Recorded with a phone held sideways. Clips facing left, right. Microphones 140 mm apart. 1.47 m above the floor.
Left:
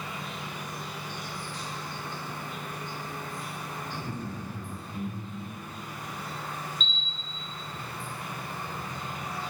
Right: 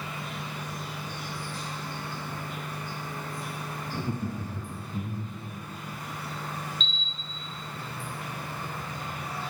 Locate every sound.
0.0 s an insect: 20° left (ahead or behind), 2.5 m
3.9 s laughter: 20° right (ahead or behind), 0.8 m
6.8 s a camera shutter: 45° left (ahead or behind), 1.5 m